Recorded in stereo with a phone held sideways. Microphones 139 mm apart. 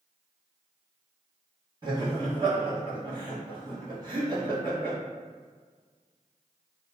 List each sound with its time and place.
1.8 s laughter: 35° right (ahead or behind), 1.6 m